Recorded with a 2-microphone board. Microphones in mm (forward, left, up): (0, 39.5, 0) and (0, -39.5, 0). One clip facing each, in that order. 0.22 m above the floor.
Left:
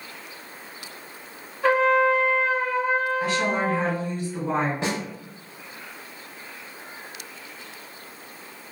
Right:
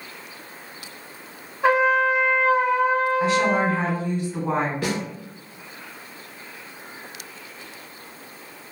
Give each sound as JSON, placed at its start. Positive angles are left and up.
{"t": 1.6, "sound": "a trumpet", "side_deg": -15, "distance_m": 1.0}
{"t": 3.2, "sound": "a woman speaking", "side_deg": -20, "distance_m": 1.6}
{"t": 4.8, "sound": "a snare drum", "side_deg": 25, "distance_m": 0.7}